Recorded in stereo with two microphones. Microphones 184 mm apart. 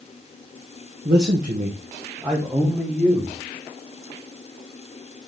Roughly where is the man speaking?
Right.